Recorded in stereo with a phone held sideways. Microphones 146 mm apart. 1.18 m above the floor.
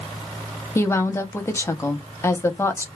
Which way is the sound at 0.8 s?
20° left (ahead or behind).